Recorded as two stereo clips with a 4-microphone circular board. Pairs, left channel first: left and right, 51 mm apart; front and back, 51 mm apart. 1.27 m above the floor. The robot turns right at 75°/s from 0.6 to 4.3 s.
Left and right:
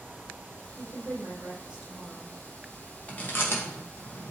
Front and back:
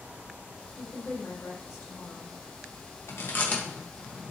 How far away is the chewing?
About 1.7 m.